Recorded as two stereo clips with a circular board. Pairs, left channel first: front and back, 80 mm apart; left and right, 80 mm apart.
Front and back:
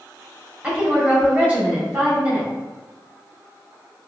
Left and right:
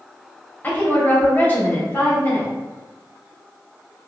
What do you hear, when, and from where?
0.6 s a woman speaking: 125° left, 1.0 m